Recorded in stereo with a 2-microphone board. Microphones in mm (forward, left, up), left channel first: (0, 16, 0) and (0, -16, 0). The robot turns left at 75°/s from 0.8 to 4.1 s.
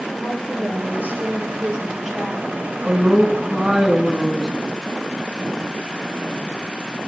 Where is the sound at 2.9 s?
100° right, 1.7 m; by 4.5 s 165° left, 1.7 m.